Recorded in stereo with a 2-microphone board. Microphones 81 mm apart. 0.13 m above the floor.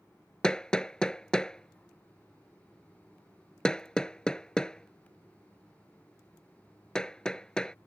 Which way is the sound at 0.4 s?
10° left (ahead or behind).